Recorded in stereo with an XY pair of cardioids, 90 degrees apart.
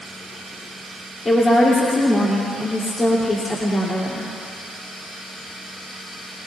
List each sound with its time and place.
1.2 s a woman speaking: 35° left, 3 m